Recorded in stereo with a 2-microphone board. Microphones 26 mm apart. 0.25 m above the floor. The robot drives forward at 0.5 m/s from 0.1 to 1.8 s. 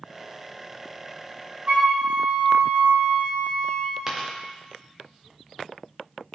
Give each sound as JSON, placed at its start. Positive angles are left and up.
{"t": 1.7, "sound": "a flute", "side_deg": -50, "distance_m": 3.5}
{"t": 4.1, "sound": "a dropped coin", "side_deg": -10, "distance_m": 2.5}